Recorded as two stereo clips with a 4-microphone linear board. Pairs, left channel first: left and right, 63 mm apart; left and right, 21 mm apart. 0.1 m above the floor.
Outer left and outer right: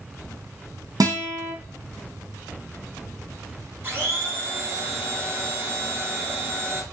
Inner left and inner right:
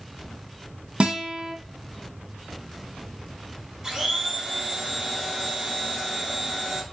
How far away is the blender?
About 1.3 m.